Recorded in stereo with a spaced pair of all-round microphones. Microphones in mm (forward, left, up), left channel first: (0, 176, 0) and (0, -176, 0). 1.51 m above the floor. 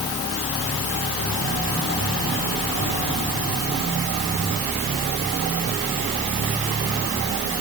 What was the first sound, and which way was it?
Only background noise.